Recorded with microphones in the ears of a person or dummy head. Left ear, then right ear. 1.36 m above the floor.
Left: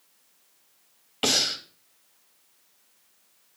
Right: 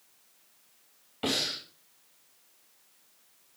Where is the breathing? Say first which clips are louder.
Left 6 dB; 85° left, 2.5 m.